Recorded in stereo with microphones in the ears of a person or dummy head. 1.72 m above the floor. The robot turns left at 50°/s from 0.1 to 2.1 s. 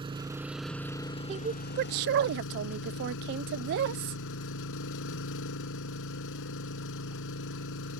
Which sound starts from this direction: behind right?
An engine running, at 0.0 s.